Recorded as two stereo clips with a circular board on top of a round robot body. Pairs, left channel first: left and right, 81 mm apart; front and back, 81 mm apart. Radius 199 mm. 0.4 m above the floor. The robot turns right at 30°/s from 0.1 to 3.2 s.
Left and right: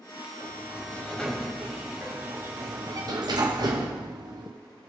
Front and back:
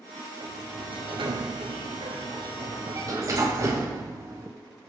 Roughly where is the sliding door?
Behind left.